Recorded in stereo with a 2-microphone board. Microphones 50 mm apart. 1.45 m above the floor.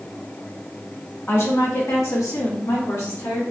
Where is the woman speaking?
50° left (ahead or behind), 0.8 m; by 3.4 s 85° left, 2 m.